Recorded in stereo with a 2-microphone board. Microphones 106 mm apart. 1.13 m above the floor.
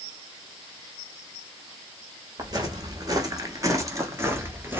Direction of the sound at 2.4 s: 35° right (ahead or behind).